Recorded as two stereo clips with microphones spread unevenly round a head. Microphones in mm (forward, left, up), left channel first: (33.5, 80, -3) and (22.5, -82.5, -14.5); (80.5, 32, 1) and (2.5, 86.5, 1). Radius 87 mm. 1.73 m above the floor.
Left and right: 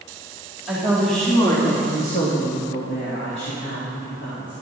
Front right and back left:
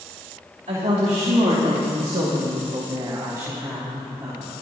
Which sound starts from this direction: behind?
A woman speaking, at 0.7 s.